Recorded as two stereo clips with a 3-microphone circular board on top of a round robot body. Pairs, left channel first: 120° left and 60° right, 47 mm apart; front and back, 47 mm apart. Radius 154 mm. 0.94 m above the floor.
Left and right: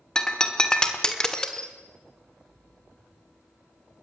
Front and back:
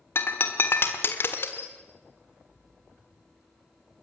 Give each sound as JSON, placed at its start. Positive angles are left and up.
{"t": 0.1, "sound": "breaking glass", "azimuth_deg": 45, "distance_m": 1.4}